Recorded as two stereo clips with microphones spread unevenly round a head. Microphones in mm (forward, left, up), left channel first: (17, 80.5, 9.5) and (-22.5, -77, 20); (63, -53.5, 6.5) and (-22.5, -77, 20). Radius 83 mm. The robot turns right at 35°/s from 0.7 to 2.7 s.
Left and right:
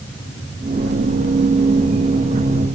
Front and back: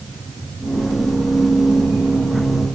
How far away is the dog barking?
No dog barking in this recording.